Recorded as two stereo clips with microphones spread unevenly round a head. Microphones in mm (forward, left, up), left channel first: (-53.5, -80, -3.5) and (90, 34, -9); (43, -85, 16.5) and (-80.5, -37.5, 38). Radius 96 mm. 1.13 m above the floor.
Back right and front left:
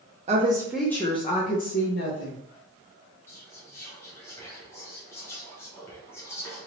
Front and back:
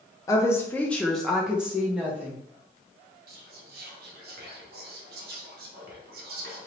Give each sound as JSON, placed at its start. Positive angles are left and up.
{"t": 0.3, "sound": "a woman speaking", "azimuth_deg": 15, "distance_m": 0.6}
{"t": 3.3, "sound": "whispering", "azimuth_deg": 140, "distance_m": 0.9}